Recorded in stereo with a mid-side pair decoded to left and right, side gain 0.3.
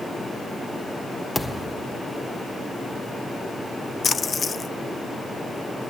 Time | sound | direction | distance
1.4 | a thud | 15° left | 1.5 m
4.0 | a splash | 55° left | 0.6 m